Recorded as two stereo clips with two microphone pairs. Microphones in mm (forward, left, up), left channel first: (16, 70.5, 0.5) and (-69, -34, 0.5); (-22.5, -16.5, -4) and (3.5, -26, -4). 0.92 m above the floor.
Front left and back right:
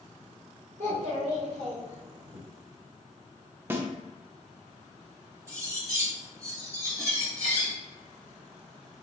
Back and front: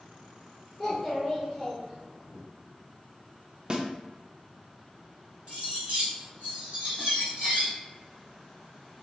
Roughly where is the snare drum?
Ahead right.